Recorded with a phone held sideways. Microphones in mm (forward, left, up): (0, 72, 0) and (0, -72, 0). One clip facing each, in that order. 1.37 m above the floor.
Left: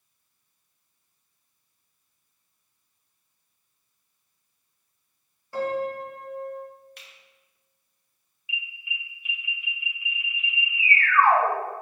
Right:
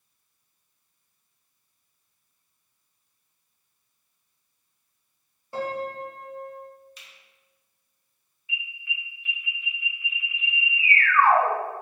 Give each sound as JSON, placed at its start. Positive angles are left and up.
{"t": 5.5, "sound": "a piano", "side_deg": -20, "distance_m": 2.0}
{"t": 7.0, "sound": "a finger snap", "side_deg": 60, "distance_m": 1.7}
{"t": 8.5, "sound": "an alarm", "side_deg": 15, "distance_m": 2.5}